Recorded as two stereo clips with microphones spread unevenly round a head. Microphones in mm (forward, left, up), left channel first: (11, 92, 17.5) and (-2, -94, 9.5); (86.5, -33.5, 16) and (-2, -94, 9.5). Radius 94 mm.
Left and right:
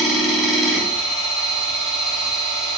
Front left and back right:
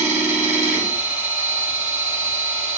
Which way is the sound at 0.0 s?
Straight behind.